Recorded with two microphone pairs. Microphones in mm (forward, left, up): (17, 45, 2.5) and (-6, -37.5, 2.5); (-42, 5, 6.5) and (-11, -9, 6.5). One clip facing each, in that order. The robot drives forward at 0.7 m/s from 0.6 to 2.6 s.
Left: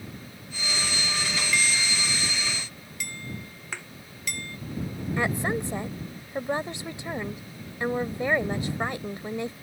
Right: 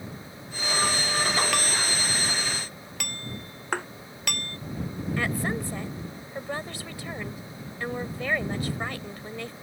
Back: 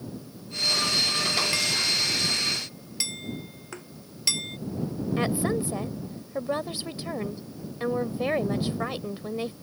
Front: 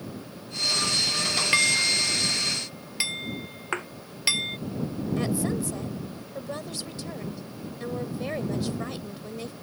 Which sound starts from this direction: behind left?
A woman speaking, at 5.2 s.